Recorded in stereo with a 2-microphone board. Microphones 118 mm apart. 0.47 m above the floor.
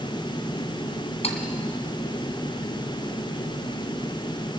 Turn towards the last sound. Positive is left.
turn(degrees=60)  # may be behind; listen again after turning